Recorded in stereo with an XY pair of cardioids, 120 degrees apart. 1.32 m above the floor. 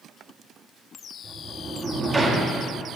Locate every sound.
1.2 s a sliding door: 15° right, 1.2 m